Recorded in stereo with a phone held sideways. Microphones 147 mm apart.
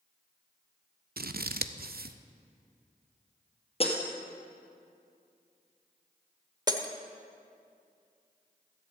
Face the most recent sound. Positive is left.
turn(degrees=-25)  # may be behind; listen again after turning